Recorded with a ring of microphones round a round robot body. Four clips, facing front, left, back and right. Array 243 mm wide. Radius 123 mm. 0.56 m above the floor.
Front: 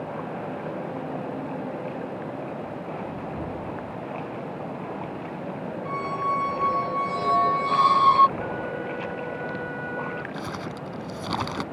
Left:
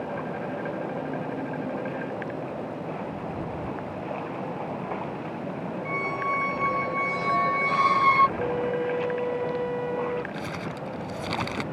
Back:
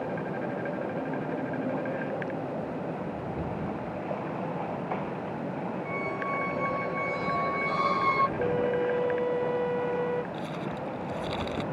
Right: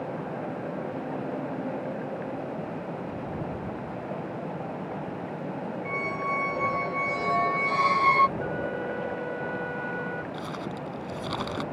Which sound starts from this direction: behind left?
A flute, at 8.4 s.